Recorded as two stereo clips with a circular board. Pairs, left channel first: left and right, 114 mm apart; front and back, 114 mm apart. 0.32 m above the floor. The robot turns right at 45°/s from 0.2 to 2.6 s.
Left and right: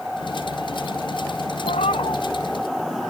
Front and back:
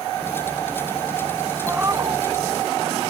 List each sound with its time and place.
1.6 s a cat meowing: 105° left; by 2.2 s 130° left